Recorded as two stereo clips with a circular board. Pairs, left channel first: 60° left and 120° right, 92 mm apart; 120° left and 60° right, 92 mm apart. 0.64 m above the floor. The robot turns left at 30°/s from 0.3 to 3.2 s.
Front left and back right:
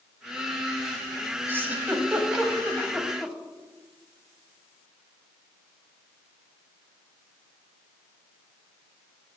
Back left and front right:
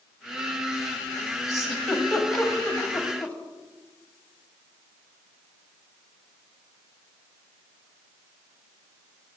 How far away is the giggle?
About 1.2 m.